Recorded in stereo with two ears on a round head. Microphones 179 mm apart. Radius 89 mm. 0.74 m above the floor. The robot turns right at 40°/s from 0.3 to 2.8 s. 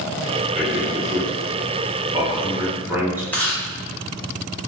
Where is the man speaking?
30° right (ahead or behind), 1.0 m; by 3.2 s 10° right (ahead or behind), 1.0 m.